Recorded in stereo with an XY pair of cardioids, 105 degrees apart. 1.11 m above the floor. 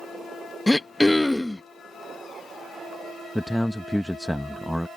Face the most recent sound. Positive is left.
turn(degrees=0)